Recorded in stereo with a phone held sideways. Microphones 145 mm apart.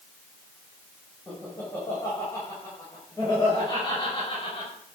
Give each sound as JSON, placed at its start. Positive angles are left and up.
{"t": 1.3, "sound": "laughter", "side_deg": 10, "distance_m": 5.5}